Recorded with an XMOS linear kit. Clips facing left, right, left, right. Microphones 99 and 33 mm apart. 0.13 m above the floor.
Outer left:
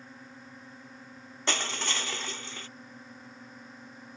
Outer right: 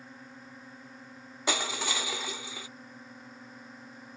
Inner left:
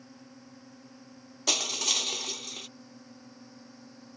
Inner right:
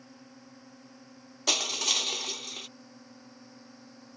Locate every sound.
0.0 s a drone: centre (ahead or behind)
1.5 s crushing: 5° right (ahead or behind)